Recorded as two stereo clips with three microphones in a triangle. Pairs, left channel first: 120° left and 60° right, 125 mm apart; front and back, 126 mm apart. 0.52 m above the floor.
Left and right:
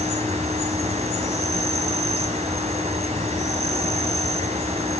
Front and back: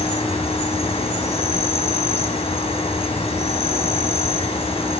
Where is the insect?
35° right, 4 m.